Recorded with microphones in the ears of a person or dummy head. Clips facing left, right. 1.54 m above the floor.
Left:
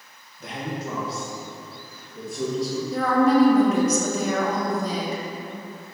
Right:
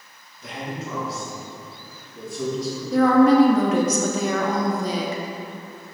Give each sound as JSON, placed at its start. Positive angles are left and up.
{"t": 0.4, "sound": "a man speaking", "side_deg": 45, "distance_m": 1.2}
{"t": 2.9, "sound": "a woman speaking", "side_deg": -65, "distance_m": 0.9}